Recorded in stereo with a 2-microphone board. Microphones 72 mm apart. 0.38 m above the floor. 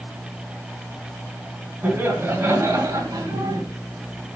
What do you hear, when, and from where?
1.8 s laughter: 25° right (ahead or behind), 2.5 m; by 3.6 s 65° right (ahead or behind), 3 m